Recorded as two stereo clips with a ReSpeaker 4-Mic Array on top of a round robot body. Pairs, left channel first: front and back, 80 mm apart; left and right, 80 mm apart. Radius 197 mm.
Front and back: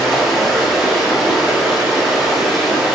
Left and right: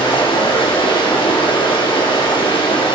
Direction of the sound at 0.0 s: 90° left.